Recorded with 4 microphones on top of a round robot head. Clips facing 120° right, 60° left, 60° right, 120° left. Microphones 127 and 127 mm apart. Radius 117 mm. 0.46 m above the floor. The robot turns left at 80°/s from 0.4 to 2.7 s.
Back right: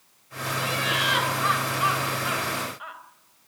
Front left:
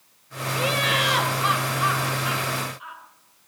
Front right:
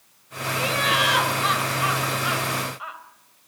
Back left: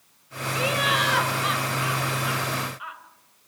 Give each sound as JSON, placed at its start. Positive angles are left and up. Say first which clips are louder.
{"t": 0.6, "sound": "laughter", "louder": "front left 4 dB, front right 1 dB", "azimuth_deg": 60, "distance_m": 3.5}